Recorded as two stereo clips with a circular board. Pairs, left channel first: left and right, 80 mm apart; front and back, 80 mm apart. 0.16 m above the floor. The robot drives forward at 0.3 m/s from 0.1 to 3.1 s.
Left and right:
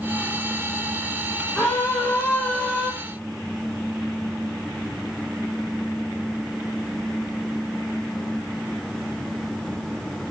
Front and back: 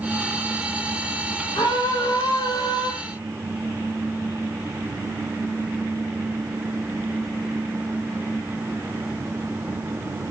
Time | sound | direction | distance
1.6 | a scream | 15° left | 4 m